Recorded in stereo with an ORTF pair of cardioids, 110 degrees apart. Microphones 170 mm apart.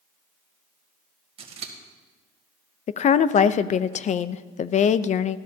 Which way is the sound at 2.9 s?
45° left.